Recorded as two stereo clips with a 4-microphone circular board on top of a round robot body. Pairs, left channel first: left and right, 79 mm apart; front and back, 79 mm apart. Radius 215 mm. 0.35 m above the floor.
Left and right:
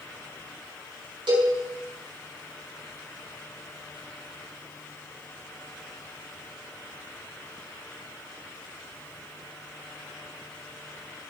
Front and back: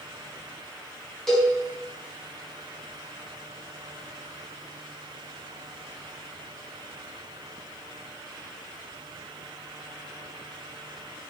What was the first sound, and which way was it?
A cowbell, 85° right.